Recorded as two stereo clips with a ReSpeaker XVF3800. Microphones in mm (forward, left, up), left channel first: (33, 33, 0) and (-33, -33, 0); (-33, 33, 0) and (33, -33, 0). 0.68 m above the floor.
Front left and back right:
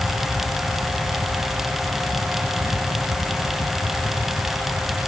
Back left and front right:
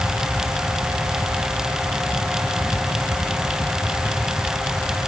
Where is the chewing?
I don't hear chewing.